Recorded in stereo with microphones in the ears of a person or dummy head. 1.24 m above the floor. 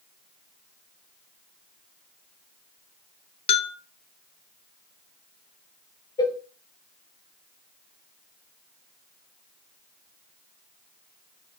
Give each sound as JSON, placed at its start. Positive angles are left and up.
{"t": 3.5, "sound": "a bell", "side_deg": 30, "distance_m": 1.0}
{"t": 6.2, "sound": "a cowbell", "side_deg": 20, "distance_m": 1.3}